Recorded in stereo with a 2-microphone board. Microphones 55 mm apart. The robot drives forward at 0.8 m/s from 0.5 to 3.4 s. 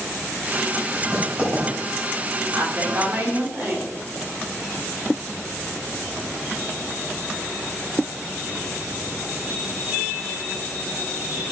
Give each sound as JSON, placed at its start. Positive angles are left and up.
{"t": 0.9, "sound": "writing", "side_deg": -20, "distance_m": 3.0}
{"t": 2.5, "sound": "a woman speaking", "side_deg": -40, "distance_m": 2.0}